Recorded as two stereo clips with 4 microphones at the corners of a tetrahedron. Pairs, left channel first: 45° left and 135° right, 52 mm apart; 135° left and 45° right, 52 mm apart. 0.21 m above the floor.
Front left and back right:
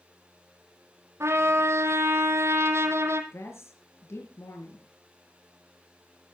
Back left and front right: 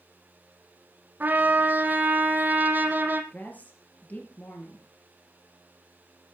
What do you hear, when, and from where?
1.2 s a trumpet: 100° right, 1.3 m
3.3 s a woman speaking: 75° left, 4.5 m